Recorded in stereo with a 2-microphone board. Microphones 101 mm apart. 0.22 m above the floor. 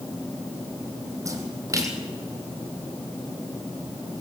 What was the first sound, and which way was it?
A splash, 30° right (ahead or behind).